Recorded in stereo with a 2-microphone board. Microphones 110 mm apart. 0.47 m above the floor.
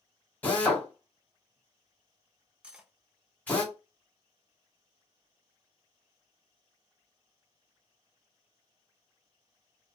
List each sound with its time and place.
0.4 s a drill: 15° left (ahead or behind), 1.8 m
2.6 s cutlery clinking: 10° right (ahead or behind), 0.5 m